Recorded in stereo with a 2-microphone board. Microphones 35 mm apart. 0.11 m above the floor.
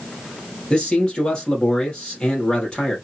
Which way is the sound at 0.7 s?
30° left (ahead or behind).